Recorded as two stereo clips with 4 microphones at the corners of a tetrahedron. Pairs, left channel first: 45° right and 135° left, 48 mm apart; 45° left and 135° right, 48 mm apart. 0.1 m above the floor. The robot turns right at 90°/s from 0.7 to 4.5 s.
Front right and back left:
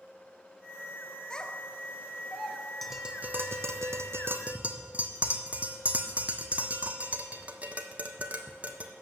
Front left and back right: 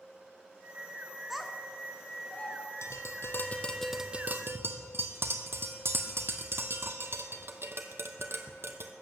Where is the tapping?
40° left, 1.2 m; by 8.9 s 165° right, 1.2 m.